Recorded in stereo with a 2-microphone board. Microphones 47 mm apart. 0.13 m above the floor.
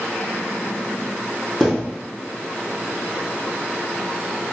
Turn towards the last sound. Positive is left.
turn(degrees=0)  # may be behind; listen again after turning